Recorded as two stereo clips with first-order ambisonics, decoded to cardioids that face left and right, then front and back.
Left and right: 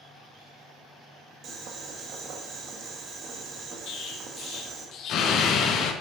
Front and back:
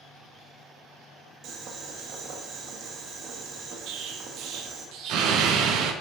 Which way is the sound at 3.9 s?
140° left.